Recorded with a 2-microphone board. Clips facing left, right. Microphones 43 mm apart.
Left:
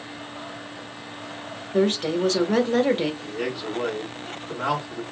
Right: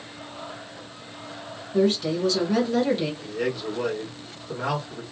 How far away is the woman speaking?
About 1.3 m.